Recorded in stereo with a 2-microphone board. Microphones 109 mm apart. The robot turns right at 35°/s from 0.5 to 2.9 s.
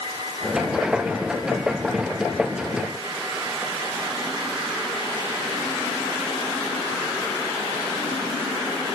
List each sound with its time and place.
Only background noise.